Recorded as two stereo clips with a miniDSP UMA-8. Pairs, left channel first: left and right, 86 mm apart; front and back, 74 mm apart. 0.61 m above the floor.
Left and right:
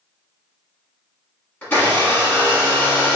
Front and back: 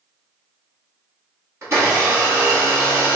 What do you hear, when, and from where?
1.6 s a blender: 145° left, 1.5 m